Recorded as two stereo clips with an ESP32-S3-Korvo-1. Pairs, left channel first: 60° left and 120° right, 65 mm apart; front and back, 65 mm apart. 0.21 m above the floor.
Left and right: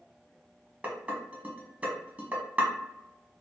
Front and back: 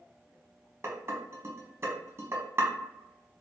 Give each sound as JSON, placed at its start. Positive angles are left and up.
{"t": 0.8, "sound": "dishes clattering", "azimuth_deg": -175, "distance_m": 1.1}